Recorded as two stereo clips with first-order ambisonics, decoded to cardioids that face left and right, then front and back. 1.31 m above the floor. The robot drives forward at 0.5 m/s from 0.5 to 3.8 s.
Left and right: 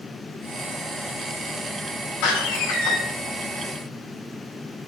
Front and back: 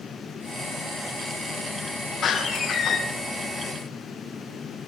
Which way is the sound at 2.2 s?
65° left.